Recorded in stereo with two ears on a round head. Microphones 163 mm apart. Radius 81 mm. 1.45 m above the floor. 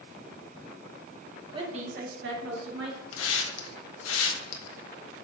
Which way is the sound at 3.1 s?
85° left.